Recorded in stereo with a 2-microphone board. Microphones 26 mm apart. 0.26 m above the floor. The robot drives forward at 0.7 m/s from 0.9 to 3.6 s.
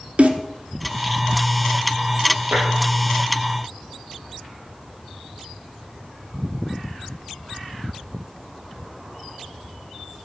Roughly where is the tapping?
Right.